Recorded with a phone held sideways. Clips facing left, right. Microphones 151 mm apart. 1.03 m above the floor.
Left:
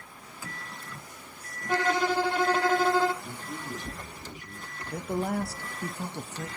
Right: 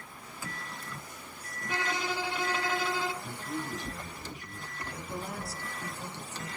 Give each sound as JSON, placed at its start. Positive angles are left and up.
{"t": 1.7, "sound": "a violin", "side_deg": 50, "distance_m": 0.8}
{"t": 3.2, "sound": "a man speaking", "side_deg": -40, "distance_m": 5.5}
{"t": 4.9, "sound": "a man speaking", "side_deg": 60, "distance_m": 1.0}